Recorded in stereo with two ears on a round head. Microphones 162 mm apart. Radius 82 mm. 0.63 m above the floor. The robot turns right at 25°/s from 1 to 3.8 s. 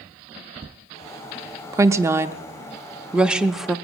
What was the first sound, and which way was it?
A woman speaking, 15° right (ahead or behind).